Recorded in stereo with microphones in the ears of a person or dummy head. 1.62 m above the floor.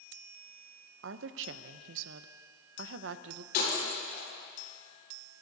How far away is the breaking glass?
About 7 m.